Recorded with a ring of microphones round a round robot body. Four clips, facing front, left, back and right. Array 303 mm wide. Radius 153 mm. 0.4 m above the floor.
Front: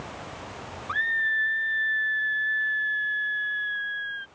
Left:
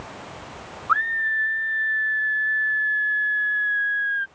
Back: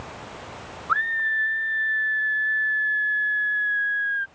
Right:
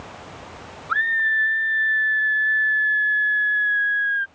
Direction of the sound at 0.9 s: 35° right.